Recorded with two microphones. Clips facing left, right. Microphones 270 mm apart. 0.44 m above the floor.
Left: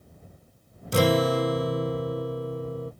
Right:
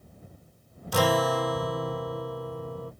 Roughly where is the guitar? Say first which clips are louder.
Left 3 dB; left.